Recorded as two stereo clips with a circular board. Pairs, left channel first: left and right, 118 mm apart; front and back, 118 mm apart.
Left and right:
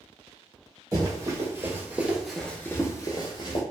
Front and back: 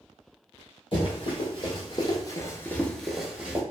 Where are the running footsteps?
35° right, 1.3 m; by 3.6 s 105° left, 0.9 m.